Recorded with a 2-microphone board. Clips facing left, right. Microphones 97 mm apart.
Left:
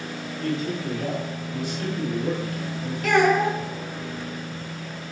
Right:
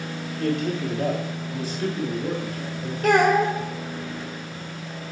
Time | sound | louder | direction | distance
0.4 | a man speaking | right 3 dB | 65° right (ahead or behind) | 1.4 m
3.0 | a child speaking | right 1 dB | 40° right (ahead or behind) | 1.7 m